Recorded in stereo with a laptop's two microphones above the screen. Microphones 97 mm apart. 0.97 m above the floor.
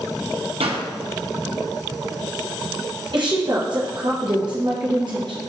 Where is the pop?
80° right, 0.6 m.